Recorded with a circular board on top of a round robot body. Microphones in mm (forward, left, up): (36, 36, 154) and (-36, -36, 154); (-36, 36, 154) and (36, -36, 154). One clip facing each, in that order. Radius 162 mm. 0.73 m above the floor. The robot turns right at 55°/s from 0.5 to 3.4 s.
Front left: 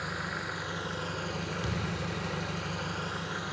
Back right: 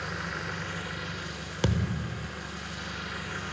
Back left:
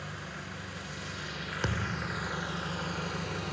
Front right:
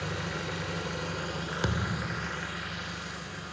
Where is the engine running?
40° right, 3.5 m; by 3.5 s 120° left, 3.5 m.